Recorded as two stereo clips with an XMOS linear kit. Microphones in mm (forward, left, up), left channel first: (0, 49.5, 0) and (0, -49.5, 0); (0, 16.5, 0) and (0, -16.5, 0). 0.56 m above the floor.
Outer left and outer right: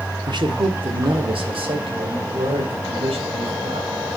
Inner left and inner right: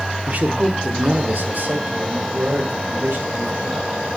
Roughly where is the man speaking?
Right.